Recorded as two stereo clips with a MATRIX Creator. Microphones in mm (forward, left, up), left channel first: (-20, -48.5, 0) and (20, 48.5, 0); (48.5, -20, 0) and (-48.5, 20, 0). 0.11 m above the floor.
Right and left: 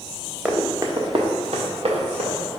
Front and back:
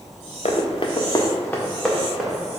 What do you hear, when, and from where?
0.5 s running footsteps: 10° right, 0.8 m; by 2.4 s 75° left, 1.4 m